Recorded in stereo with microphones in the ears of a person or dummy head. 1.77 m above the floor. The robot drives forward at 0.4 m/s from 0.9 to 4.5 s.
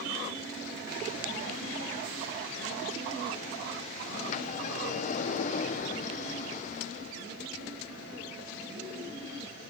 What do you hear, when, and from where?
4.1 s a sliding door: 40° left (ahead or behind), 1.1 m; by 7.2 s 45° left (ahead or behind), 1.1 m